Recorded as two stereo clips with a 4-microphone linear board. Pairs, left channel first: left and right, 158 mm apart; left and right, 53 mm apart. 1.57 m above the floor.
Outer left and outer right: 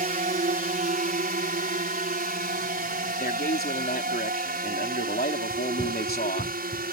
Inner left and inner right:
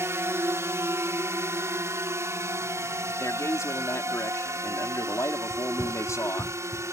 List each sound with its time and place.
0.0 s a drone: 60° right (ahead or behind); by 6.9 s 75° right (ahead or behind)
3.2 s a man speaking: 80° left
5.5 s running footsteps: 5° right (ahead or behind); by 6.9 s 30° right (ahead or behind)